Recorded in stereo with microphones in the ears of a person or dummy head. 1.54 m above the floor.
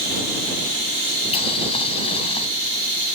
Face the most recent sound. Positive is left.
turn(degrees=30)  # may be behind; listen again after turning